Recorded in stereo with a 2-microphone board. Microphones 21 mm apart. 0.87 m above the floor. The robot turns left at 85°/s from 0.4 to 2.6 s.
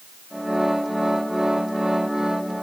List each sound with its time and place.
Only background noise.